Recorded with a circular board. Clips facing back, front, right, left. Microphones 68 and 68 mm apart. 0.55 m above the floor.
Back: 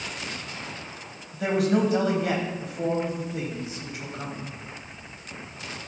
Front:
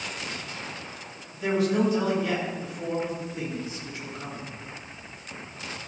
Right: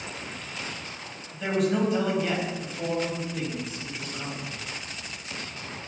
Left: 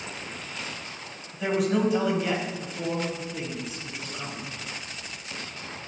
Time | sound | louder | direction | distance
1.3 | a man speaking | back 1 dB, even | 175° left | 4 m